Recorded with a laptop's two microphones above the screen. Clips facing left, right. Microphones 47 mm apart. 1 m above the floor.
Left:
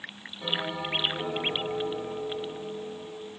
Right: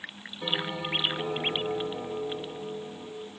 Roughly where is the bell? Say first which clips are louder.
Even; right.